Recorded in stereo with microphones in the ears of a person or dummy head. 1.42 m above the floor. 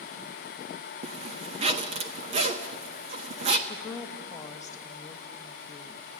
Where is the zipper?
35° right (ahead or behind), 1.3 m.